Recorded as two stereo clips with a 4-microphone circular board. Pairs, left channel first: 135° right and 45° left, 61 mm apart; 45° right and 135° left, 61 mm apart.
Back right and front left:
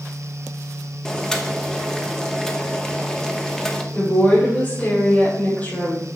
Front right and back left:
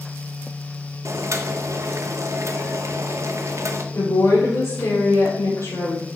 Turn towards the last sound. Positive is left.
turn(degrees=-75)